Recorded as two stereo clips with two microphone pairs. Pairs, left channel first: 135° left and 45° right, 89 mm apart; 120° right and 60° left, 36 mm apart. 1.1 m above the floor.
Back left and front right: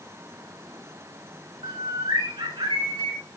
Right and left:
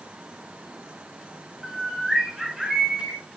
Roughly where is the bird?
Ahead right.